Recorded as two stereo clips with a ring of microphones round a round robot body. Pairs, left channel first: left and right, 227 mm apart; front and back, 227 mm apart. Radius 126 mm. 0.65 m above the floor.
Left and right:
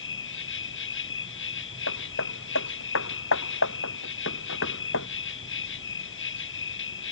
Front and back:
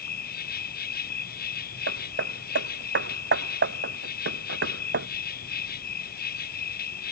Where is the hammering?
140° left.